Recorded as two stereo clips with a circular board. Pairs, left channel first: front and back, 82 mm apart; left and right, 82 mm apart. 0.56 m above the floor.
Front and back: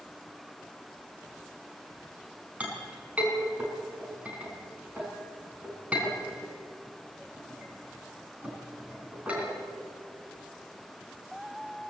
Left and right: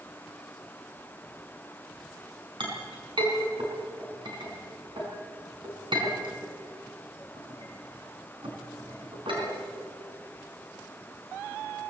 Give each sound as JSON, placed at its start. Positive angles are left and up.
{"t": 2.6, "sound": "a clink", "azimuth_deg": -105, "distance_m": 4.5}